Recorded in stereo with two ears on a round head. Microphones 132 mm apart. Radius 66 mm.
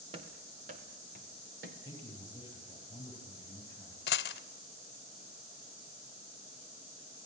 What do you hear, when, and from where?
0.1 s running footsteps: 40° right (ahead or behind), 4 m; by 1.8 s 70° right (ahead or behind), 5 m
1.9 s a man speaking: 25° left (ahead or behind), 10 m
4.1 s a dropped coin: 75° left (ahead or behind), 0.9 m